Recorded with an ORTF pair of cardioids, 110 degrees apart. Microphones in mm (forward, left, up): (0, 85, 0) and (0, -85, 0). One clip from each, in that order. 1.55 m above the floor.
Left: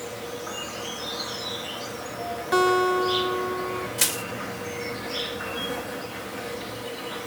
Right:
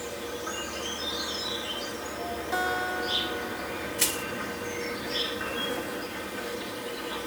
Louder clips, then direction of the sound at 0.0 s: Left 1 dB; 5° left.